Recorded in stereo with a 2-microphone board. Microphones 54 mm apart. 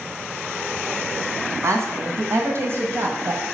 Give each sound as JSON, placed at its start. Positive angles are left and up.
{"t": 1.6, "sound": "a woman speaking", "side_deg": -65, "distance_m": 2.5}